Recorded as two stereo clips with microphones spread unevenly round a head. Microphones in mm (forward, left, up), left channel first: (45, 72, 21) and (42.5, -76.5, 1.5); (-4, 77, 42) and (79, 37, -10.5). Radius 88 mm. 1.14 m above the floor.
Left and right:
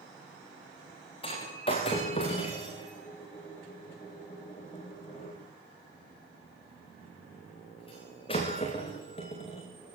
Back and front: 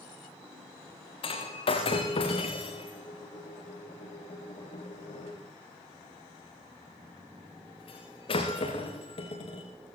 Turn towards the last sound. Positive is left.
turn(degrees=150)